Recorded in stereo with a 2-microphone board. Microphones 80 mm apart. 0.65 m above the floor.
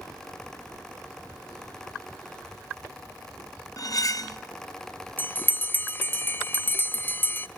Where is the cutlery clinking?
45° left (ahead or behind), 0.8 m.